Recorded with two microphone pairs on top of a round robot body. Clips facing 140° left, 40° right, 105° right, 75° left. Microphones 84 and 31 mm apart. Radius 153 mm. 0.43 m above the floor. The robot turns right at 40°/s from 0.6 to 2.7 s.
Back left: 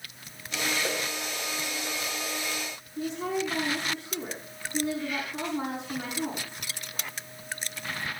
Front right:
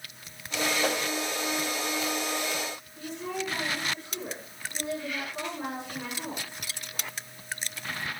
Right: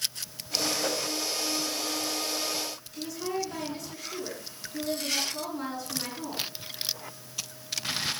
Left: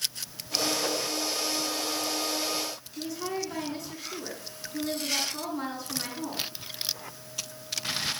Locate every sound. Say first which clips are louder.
0.8 s a whoosh: front right 3 dB, even; 15° right, 4 m; by 1.1 s 5° right, 4 m
3.0 s a woman speaking: back left 5 dB, right 1 dB; 130° left, 9 m